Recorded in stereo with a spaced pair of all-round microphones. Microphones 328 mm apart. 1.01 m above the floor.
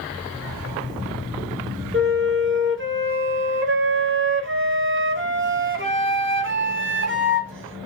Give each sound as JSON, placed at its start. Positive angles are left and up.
{"t": 1.9, "sound": "a flute", "side_deg": -40, "distance_m": 0.7}